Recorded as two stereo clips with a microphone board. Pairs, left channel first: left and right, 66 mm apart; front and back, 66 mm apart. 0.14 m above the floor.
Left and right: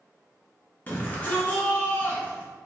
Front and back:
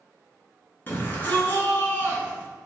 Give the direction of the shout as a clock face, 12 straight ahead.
11 o'clock.